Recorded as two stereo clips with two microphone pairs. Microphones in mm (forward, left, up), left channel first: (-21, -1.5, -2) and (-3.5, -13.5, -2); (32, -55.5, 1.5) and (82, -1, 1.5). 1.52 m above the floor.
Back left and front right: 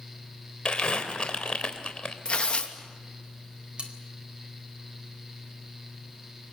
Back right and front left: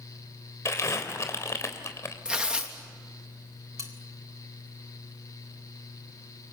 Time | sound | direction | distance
0.7 | crumpling | straight behind | 3.5 m
2.2 | tearing paper | 125° left | 3 m
3.8 | cutlery clinking | straight ahead | 4 m